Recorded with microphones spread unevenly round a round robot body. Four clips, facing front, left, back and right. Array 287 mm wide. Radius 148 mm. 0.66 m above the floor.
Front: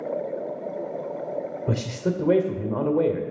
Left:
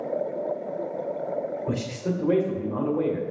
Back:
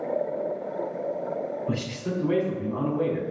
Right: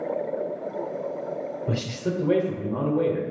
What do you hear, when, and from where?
1.7 s a man speaking: 10° right, 2 m